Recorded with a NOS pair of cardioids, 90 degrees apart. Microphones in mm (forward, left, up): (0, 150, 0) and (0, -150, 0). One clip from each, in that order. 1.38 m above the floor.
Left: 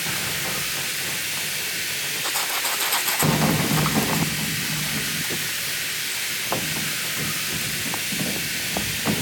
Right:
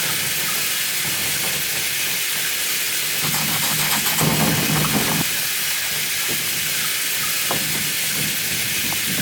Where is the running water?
65° right, 3 m.